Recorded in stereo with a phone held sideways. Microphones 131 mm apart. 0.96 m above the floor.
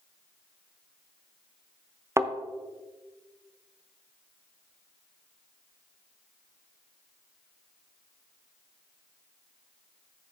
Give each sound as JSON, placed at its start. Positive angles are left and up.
{"t": 2.2, "sound": "a thud", "side_deg": -20, "distance_m": 0.5}